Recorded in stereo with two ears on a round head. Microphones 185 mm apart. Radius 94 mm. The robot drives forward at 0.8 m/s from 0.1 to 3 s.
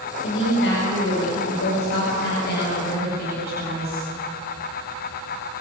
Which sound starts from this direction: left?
A woman speaking, at 0.2 s.